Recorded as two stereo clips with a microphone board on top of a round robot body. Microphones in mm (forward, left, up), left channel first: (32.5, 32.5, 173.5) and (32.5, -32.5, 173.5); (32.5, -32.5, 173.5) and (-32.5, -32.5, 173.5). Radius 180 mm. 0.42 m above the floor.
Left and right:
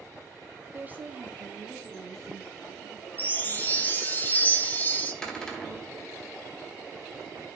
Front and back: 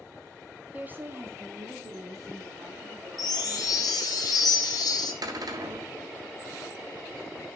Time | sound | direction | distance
0.7 | a woman speaking | 125° right | 1.7 m
3.2 | a chime | 25° left | 1.5 m
5.2 | a cupboard door | 170° left | 1.9 m